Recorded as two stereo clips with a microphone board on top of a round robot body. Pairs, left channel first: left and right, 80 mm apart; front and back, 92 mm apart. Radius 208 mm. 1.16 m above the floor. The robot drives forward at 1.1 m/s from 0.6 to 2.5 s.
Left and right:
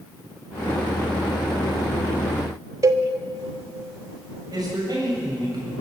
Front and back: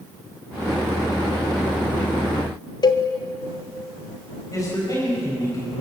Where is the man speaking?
55° right, 7 m.